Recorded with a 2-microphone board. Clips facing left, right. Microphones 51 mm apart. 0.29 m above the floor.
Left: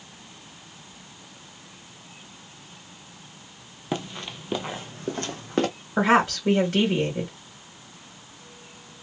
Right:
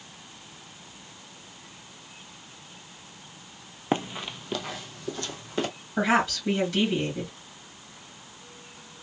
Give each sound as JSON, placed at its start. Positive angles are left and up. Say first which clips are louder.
{"t": 3.9, "sound": "running footsteps", "louder": "right 3 dB", "side_deg": -30, "distance_m": 0.5}
{"t": 6.0, "sound": "a woman speaking", "louder": "left 4 dB", "side_deg": 40, "distance_m": 2.0}